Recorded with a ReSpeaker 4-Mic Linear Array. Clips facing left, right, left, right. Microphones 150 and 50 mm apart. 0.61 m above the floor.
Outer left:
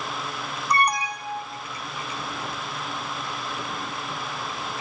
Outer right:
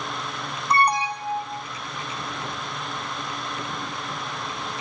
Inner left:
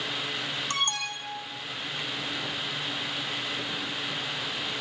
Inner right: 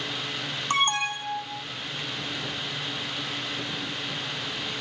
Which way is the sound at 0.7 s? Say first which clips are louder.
Outer right 3 dB, inner right 9 dB; 30° right (ahead or behind).